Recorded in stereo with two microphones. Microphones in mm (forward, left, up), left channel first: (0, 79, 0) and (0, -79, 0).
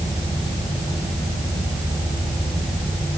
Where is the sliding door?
I don't hear a sliding door.